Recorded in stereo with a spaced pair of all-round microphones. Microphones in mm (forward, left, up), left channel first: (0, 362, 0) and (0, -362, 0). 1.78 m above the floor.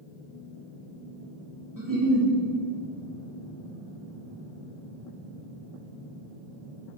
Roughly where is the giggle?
Right.